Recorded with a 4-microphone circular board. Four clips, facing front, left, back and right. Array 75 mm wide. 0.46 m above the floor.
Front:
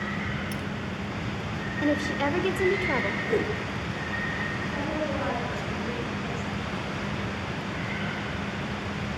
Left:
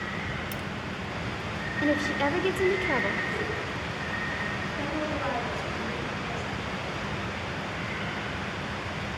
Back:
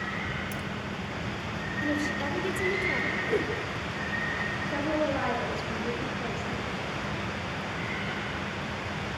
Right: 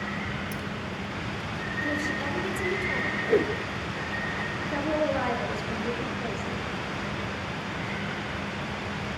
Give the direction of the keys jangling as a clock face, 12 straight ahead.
10 o'clock.